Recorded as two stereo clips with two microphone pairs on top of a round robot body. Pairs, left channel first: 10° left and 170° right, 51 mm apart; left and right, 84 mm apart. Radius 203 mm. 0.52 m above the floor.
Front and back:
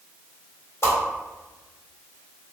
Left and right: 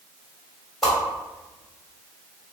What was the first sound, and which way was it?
A whoosh, 5° left.